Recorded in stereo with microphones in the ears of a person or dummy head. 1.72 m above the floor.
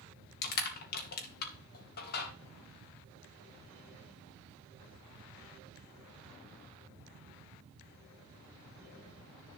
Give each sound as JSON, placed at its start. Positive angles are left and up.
{"t": 0.4, "sound": "crushing", "side_deg": 55, "distance_m": 2.5}